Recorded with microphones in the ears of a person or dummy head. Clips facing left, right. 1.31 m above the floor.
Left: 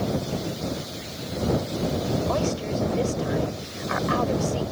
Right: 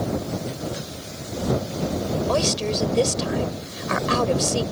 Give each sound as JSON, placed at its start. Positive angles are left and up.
{"t": 2.3, "sound": "a woman speaking", "side_deg": -55}